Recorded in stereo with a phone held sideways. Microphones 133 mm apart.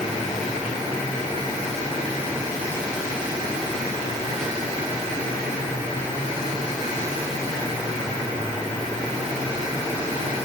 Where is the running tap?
No running tap in this recording.